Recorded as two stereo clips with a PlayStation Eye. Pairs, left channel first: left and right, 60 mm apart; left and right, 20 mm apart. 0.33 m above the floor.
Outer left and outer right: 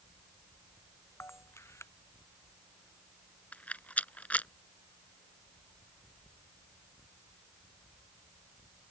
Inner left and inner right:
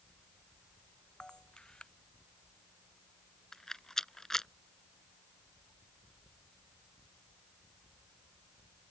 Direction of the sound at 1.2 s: 50° left (ahead or behind).